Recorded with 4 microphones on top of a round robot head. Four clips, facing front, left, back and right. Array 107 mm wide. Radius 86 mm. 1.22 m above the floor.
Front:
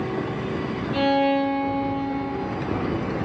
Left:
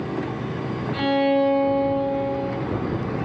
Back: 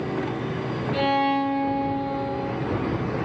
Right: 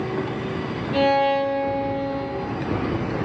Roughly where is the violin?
Right.